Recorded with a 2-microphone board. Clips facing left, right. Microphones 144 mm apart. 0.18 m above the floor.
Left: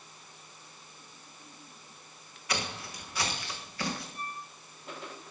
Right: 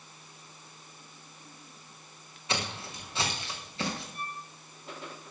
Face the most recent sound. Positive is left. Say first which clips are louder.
# right 1 dB
turn(degrees=-60)  # may be behind; listen again after turning